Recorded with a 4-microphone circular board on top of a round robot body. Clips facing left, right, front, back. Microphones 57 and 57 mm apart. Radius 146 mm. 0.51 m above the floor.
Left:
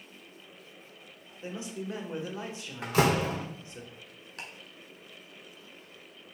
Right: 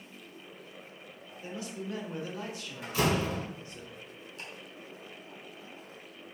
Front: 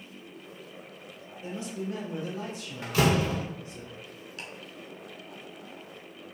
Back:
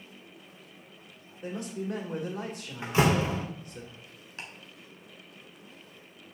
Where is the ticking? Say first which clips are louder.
Left 3 dB, even; 120° left, 1.1 m.